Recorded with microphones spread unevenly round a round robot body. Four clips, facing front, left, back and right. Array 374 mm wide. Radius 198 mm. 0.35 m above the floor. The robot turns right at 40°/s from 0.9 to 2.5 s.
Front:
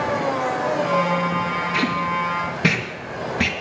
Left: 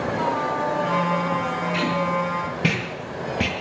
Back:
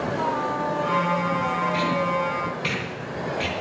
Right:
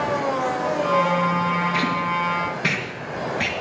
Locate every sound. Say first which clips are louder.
1.7 s tape being pulled: even, front 1 dB; straight ahead, 3 m; by 3.5 s 30° left, 3 m